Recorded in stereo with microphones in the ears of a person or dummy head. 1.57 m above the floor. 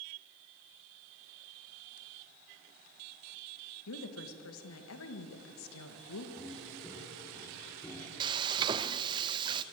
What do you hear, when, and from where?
3.9 s a woman speaking: 75° left (ahead or behind), 2.0 m
6.4 s footsteps: 5° left (ahead or behind), 3.5 m; by 8.1 s 15° left (ahead or behind), 5 m
8.2 s frying: 25° right (ahead or behind), 0.7 m